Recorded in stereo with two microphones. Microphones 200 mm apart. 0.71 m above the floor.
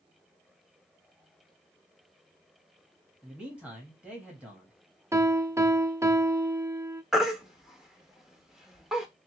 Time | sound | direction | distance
3.2 | a man speaking | 5° right (ahead or behind) | 1.0 m
5.1 | a piano | 15° right (ahead or behind) | 0.5 m
7.1 | a baby crying | 5° right (ahead or behind) | 0.8 m